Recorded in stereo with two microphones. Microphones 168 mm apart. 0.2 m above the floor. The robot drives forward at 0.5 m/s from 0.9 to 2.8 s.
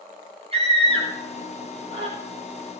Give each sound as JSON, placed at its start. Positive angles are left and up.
{"t": 0.5, "sound": "a scream", "side_deg": -35, "distance_m": 6.5}